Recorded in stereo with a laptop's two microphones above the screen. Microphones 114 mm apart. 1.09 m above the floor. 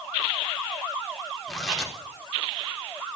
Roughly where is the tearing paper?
Centre.